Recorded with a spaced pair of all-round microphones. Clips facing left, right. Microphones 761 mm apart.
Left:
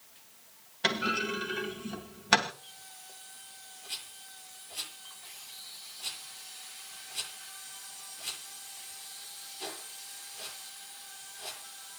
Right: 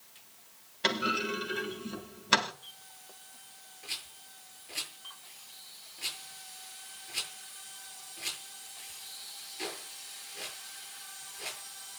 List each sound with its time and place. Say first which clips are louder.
0.8 s a clunk: even; 25° left (ahead or behind), 3 m
3.8 s a rattle: right 4 dB; 80° right, 8 m